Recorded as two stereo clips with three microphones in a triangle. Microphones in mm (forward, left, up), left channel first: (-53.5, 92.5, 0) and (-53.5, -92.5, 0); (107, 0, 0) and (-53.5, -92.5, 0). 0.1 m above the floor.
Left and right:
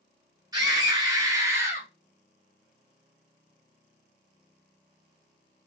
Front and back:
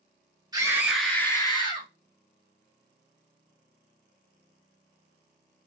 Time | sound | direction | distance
0.5 | a scream | 125° right | 1.2 m